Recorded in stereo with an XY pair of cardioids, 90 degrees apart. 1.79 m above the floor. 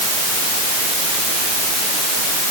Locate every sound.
Only background noise.